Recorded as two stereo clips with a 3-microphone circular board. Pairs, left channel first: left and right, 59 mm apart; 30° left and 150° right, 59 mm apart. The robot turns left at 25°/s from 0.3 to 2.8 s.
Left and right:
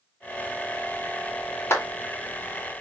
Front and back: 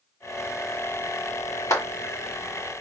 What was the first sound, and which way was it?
A clap, 50° left.